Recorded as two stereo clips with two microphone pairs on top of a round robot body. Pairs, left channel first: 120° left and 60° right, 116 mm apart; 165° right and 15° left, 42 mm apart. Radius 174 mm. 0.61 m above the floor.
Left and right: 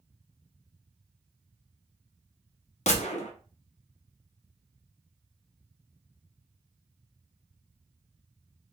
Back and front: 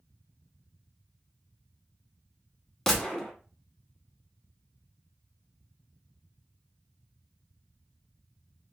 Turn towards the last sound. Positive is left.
turn(degrees=120)